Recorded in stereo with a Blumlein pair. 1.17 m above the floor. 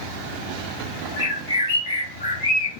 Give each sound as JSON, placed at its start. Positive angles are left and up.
{"t": 1.2, "sound": "a bird", "azimuth_deg": 60, "distance_m": 1.2}